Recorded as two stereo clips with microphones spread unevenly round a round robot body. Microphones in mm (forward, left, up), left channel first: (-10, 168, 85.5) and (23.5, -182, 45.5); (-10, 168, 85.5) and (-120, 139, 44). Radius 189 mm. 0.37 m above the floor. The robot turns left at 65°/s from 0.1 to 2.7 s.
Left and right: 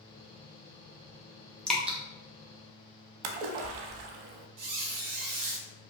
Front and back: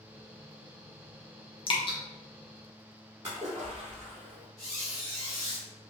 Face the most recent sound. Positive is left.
turn(degrees=-85)